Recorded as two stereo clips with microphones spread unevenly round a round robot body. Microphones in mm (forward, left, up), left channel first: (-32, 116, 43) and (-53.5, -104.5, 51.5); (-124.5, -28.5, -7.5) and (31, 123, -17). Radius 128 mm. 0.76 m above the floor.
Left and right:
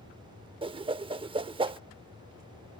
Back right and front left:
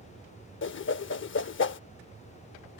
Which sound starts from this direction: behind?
A whoosh, at 0.6 s.